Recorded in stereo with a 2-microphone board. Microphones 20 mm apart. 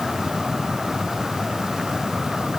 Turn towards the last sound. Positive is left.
No sound to turn to.